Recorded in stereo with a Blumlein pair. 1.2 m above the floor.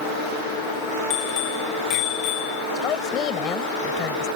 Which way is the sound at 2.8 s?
30° left.